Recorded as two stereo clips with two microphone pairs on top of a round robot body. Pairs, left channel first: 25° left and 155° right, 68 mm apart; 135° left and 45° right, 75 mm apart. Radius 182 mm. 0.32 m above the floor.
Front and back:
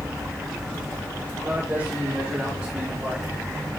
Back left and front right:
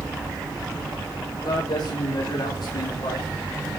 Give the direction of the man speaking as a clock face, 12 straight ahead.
7 o'clock.